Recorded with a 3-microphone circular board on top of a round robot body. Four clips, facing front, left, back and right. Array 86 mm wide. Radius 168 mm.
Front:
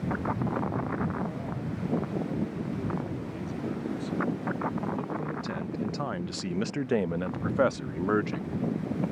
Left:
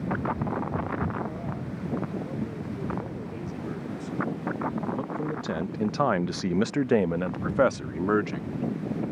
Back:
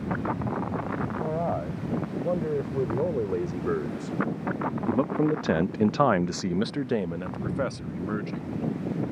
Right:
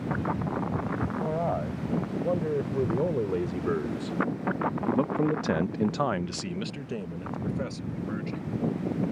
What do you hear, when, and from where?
1.2 s a man speaking: 140° right; by 8.6 s 60° left